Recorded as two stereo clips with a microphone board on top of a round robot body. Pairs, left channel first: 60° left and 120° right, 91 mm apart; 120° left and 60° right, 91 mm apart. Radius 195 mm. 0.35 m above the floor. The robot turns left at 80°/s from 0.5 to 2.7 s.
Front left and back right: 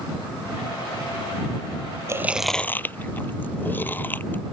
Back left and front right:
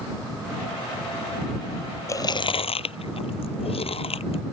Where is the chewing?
Straight behind; by 4.4 s 130° left.